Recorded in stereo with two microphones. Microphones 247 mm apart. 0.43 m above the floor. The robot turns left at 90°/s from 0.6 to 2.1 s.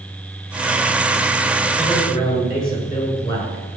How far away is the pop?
I don't hear a pop.